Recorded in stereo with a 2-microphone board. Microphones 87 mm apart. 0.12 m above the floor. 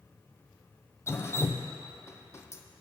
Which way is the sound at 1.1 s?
30° left (ahead or behind).